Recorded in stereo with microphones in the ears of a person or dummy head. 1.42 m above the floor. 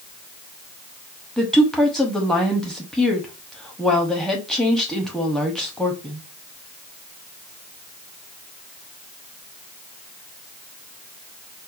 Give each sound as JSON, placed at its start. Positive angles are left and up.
{"t": 1.4, "sound": "a woman speaking", "side_deg": 0, "distance_m": 0.8}